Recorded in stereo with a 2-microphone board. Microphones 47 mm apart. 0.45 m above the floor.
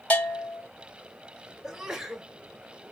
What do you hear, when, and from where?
0.1 s a bell: 25° left (ahead or behind), 1.8 m
1.6 s a sneeze: 10° right (ahead or behind), 1.1 m